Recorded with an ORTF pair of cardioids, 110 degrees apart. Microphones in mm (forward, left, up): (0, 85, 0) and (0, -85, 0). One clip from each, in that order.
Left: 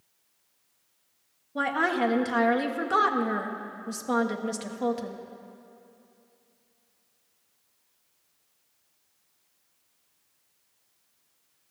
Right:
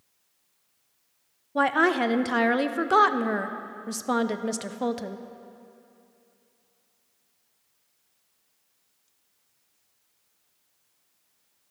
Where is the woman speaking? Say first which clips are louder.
Right 4 dB; 25° right, 0.6 m.